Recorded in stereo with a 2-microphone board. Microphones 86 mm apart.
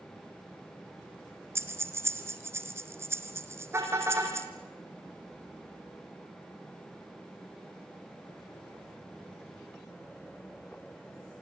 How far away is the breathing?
About 2 m.